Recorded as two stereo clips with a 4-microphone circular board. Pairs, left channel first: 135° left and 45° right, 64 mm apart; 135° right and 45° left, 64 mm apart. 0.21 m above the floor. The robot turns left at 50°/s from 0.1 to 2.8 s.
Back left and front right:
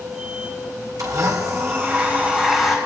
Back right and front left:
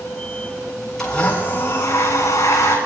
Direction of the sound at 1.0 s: 50° right.